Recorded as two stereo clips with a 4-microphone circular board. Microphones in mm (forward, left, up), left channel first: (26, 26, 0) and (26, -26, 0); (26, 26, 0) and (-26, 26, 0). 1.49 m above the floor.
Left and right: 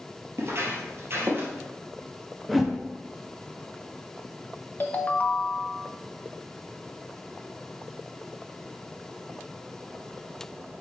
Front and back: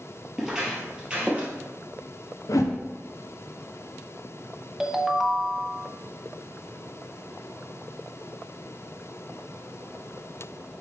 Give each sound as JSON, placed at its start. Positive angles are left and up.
{"t": 0.4, "sound": "footsteps", "azimuth_deg": -100, "distance_m": 2.5}
{"t": 2.5, "sound": "a whoosh", "azimuth_deg": 0, "distance_m": 0.9}
{"t": 4.8, "sound": "a ringtone", "azimuth_deg": 105, "distance_m": 0.8}